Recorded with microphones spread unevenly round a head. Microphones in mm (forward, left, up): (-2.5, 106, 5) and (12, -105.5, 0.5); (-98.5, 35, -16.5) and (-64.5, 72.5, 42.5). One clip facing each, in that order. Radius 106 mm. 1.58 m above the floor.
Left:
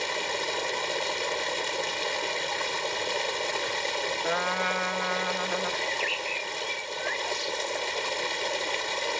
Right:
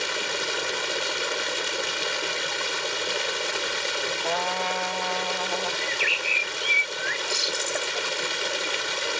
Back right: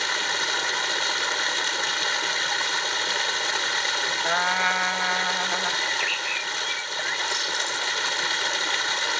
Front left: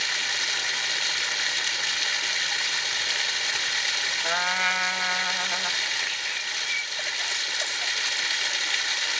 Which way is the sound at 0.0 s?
160° right.